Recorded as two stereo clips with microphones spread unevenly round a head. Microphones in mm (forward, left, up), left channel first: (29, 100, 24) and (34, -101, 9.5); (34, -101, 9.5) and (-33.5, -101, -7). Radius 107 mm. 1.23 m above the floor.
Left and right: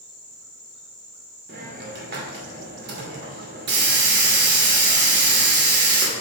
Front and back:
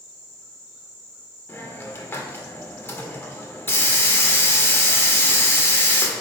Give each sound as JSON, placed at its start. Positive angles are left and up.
{"t": 1.5, "sound": "a hiss", "azimuth_deg": -50, "distance_m": 2.0}